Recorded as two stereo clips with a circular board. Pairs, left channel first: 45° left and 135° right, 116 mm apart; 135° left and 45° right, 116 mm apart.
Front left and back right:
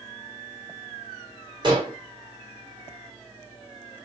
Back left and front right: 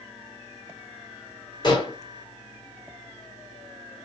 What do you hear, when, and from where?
1.6 s dishes clattering: straight behind, 1.5 m